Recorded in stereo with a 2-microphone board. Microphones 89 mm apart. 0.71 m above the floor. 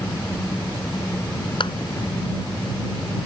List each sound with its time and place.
0.0 s an engine running: 30° left (ahead or behind)
1.6 s a clap: 60° left (ahead or behind)